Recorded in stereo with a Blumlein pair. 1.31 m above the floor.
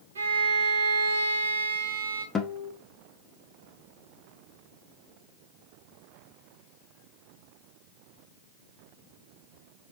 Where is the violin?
65° right, 1.0 m.